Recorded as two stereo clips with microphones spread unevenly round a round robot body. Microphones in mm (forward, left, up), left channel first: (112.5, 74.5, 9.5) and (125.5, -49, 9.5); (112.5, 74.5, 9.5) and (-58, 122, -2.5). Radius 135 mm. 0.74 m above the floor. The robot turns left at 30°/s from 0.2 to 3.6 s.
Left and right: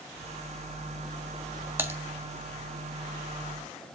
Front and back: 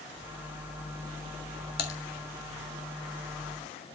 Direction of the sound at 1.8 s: 15° right.